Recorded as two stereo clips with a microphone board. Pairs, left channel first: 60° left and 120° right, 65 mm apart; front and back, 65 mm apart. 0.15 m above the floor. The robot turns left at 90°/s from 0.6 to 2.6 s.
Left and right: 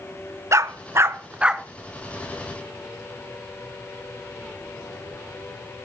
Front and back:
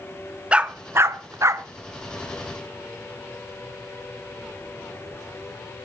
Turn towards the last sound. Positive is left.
turn(degrees=70)